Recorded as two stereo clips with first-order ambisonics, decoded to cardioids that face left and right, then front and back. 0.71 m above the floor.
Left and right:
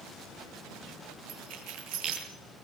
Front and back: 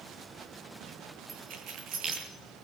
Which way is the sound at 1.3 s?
130° right.